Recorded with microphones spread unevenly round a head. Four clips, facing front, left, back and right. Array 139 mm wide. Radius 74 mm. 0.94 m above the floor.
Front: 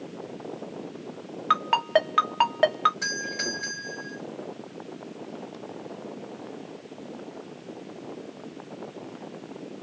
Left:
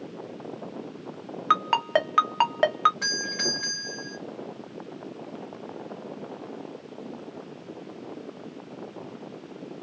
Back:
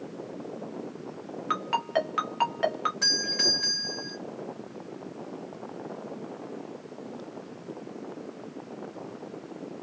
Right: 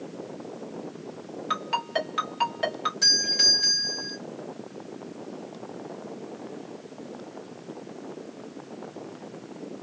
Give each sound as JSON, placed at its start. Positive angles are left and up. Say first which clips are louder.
{"t": 1.5, "sound": "a ringtone", "louder": "left 6 dB, front 5 dB", "azimuth_deg": 40, "distance_m": 0.8}
{"t": 3.0, "sound": "a doorbell", "louder": "left 1 dB, even", "azimuth_deg": 130, "distance_m": 1.9}